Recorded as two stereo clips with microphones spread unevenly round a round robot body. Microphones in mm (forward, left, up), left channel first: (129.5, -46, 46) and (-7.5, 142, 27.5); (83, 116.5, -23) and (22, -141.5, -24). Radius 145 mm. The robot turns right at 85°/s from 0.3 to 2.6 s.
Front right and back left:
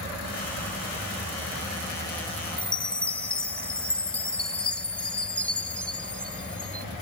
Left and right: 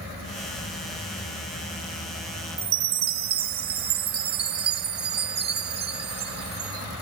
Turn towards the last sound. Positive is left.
turn(degrees=-140)